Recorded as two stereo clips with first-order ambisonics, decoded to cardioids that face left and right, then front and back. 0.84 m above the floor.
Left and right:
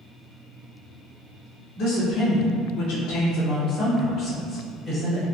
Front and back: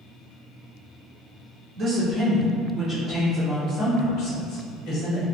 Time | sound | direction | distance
1.8 | a woman speaking | 135° left | 1.1 m